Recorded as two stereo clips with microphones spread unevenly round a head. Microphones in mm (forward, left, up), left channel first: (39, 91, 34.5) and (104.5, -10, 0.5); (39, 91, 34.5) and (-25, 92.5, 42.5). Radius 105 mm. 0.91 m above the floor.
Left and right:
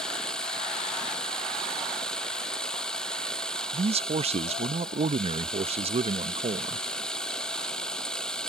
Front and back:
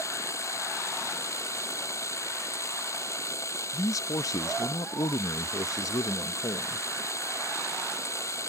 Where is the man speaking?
30° right.